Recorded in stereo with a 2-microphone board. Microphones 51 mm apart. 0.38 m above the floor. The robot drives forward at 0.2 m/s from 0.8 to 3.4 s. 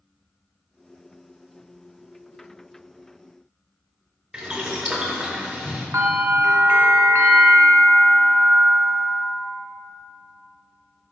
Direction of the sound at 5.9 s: 75° right (ahead or behind).